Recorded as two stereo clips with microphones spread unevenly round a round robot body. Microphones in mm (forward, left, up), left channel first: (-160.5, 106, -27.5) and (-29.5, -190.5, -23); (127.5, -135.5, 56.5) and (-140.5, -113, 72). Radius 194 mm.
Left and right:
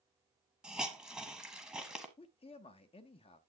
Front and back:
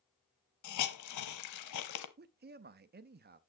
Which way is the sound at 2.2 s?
170° left.